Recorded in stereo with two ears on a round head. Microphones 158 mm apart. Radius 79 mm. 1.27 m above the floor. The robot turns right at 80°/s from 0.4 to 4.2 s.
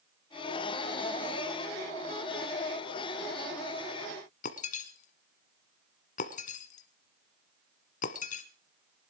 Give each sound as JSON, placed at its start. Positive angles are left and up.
{"t": 4.4, "sound": "breaking glass", "side_deg": 45, "distance_m": 1.7}